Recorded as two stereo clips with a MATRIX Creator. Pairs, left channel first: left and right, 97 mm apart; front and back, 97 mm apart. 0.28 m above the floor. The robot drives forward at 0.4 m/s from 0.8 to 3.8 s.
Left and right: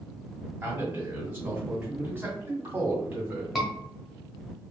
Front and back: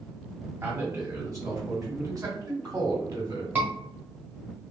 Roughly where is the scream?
Behind.